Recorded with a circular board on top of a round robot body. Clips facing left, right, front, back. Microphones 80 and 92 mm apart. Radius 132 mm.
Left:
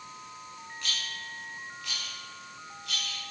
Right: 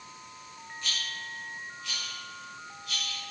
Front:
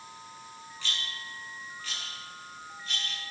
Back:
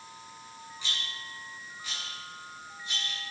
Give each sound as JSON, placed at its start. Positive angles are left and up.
{"t": 0.8, "sound": "a rattle", "azimuth_deg": 105, "distance_m": 7.0}